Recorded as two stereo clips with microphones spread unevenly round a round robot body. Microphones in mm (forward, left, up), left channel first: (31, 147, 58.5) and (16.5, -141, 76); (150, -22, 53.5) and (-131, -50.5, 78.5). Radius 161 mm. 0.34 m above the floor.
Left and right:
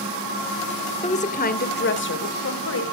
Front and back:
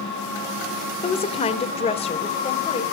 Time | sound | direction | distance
1.0 | a woman speaking | 45° left | 1.1 m